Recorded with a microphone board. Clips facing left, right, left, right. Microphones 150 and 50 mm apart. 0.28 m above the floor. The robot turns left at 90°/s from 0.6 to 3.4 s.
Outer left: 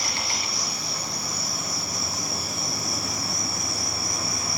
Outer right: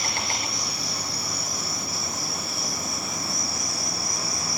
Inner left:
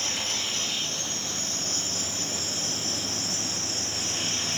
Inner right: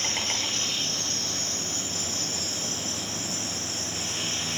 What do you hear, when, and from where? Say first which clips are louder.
0.0 s an insect: outer right 1 dB, inner right 1 dB; 50° right, 6 m; by 4.6 s 55° left, 6 m